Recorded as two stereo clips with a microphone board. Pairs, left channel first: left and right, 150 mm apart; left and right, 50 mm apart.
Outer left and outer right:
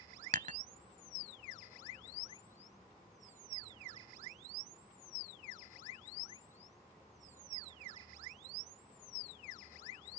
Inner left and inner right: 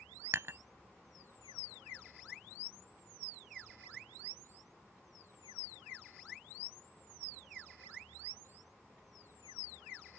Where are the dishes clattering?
60° right (ahead or behind).